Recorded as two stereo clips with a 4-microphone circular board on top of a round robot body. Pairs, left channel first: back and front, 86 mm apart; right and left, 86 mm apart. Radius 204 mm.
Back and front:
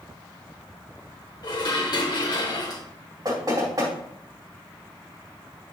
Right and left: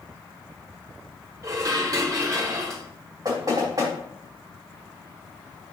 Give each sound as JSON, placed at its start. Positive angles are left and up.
{"t": 1.4, "sound": "dishes clattering", "azimuth_deg": 140, "distance_m": 1.7}
{"t": 3.2, "sound": "knocking", "azimuth_deg": 45, "distance_m": 4.0}